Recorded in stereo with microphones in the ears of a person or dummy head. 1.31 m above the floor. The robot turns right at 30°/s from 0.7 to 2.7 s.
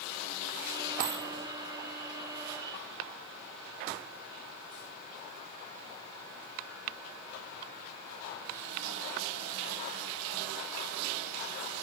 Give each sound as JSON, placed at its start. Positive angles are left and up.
{"t": 1.0, "sound": "a dropped coin", "side_deg": -45, "distance_m": 1.8}